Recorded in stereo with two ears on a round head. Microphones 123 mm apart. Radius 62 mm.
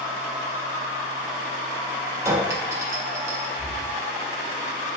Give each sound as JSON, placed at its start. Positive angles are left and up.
{"t": 2.2, "sound": "a clink", "side_deg": -20, "distance_m": 0.6}
{"t": 3.6, "sound": "breathing", "side_deg": -10, "distance_m": 1.5}